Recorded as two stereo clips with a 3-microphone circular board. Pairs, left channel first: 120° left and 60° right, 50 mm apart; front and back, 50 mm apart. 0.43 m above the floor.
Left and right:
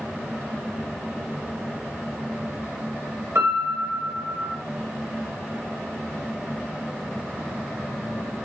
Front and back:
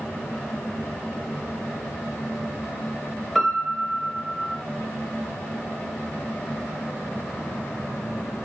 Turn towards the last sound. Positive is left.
turn(degrees=-80)